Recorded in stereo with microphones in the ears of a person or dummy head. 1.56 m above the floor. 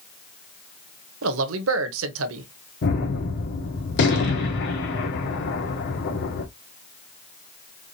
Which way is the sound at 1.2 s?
75° right (ahead or behind).